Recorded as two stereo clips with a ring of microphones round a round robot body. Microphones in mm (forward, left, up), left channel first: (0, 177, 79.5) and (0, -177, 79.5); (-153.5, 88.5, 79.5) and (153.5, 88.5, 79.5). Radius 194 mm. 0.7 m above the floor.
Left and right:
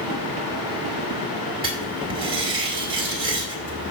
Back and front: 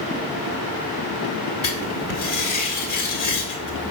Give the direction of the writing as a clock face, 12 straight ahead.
6 o'clock.